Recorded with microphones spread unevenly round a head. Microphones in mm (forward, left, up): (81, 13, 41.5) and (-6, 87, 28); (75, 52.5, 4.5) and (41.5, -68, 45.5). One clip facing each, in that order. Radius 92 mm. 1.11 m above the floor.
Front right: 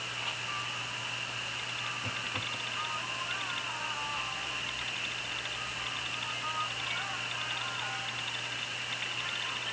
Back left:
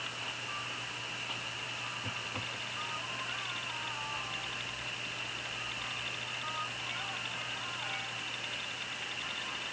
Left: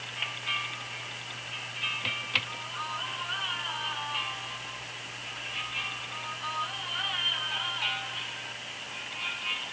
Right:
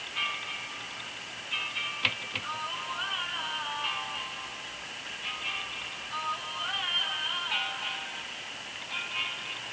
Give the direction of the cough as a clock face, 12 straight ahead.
I don't hear a cough.